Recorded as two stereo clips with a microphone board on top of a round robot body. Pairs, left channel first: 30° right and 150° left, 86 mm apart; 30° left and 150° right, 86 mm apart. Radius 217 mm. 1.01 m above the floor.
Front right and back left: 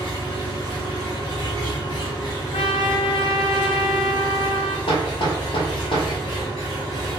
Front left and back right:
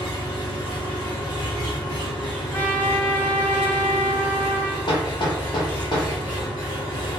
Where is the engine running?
10° right, 0.9 m.